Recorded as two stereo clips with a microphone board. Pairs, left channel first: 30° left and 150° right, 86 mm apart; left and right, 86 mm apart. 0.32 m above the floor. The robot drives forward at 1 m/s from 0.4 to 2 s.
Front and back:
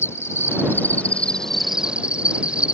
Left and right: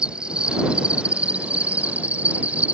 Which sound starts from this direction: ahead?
An insect, at 0.0 s.